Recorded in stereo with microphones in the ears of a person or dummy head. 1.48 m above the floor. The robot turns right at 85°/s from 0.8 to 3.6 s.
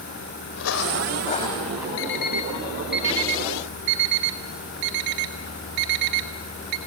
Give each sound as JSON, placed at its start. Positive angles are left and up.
{"t": 0.6, "sound": "footsteps", "side_deg": 65, "distance_m": 3.5}
{"t": 2.0, "sound": "an alarm clock", "side_deg": 70, "distance_m": 2.5}